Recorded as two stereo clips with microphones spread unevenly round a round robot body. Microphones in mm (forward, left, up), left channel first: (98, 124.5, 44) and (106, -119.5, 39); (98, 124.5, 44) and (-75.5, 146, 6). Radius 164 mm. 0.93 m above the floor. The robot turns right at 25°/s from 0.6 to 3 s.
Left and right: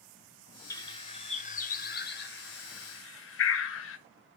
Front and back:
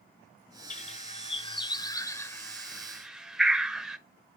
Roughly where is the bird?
Ahead.